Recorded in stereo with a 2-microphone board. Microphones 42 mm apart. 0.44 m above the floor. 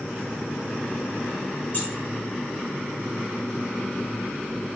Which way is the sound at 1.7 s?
45° left (ahead or behind).